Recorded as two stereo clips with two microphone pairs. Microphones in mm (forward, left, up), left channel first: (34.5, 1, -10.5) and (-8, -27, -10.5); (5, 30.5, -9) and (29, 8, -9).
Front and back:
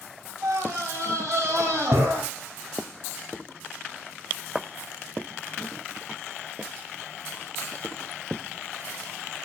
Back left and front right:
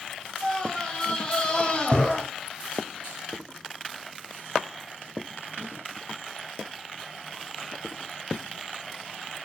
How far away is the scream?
About 3.5 m.